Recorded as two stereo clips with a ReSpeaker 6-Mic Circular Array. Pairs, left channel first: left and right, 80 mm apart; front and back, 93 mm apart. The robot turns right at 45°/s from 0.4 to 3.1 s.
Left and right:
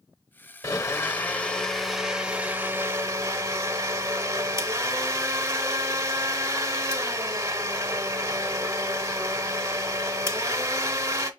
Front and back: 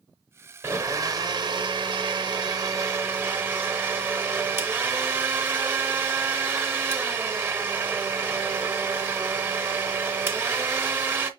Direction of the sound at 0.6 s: 125° left.